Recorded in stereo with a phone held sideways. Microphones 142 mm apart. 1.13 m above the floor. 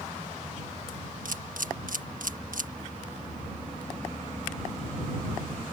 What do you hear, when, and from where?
1.2 s a camera shutter: 70° right (ahead or behind)